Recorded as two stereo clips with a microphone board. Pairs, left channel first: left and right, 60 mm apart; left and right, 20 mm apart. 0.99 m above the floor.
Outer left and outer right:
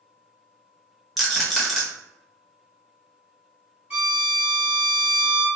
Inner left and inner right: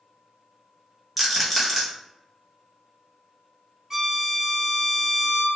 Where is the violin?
20° right (ahead or behind), 1.2 m.